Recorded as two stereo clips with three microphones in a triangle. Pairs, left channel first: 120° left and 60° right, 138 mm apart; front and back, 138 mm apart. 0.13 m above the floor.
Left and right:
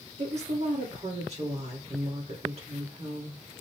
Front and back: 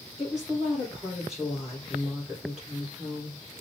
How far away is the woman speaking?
About 3 m.